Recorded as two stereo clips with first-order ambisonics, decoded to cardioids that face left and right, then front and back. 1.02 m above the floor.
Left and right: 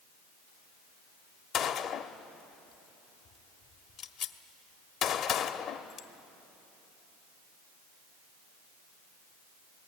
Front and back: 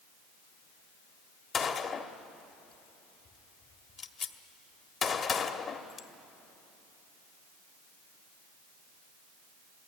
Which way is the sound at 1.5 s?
55° left.